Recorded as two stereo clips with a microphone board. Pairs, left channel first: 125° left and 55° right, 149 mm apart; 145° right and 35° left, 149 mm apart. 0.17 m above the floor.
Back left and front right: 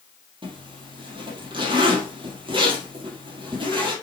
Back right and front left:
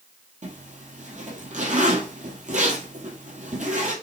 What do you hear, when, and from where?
0.4 s a zipper: straight ahead, 2.5 m